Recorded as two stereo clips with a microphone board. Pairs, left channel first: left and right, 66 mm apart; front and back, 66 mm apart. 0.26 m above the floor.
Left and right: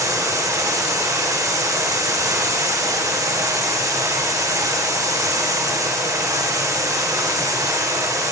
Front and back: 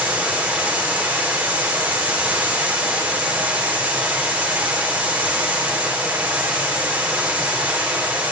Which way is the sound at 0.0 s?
115° right.